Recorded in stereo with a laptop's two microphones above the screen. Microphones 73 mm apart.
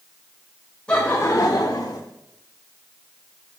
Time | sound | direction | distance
0.9 | laughter | 15° left (ahead or behind) | 0.9 m